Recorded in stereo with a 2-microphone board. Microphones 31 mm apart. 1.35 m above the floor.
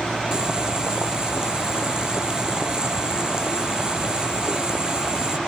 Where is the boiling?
25° right (ahead or behind).